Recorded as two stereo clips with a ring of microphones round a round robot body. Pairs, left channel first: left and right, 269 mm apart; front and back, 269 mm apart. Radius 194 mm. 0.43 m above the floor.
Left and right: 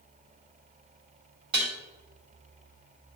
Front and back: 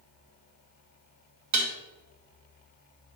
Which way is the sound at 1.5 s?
165° right.